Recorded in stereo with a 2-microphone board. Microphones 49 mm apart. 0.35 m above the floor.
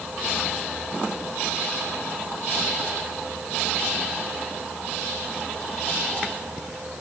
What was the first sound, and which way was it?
Only background noise.